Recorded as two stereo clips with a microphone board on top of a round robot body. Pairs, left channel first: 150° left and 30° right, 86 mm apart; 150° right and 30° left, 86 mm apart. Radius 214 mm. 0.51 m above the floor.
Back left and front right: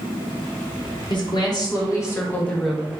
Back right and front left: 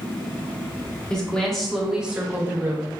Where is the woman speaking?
130° left, 1.3 m; by 3.0 s 35° left, 0.8 m.